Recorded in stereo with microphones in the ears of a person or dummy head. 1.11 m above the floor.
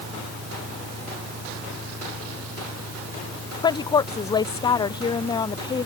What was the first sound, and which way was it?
An engine running, 80° right.